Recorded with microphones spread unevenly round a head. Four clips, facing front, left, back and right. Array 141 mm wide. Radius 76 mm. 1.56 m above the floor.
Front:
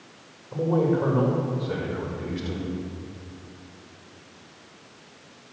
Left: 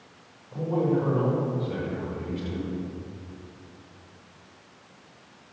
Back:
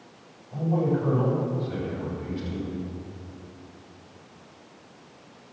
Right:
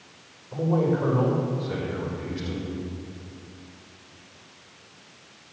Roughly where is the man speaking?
Ahead right.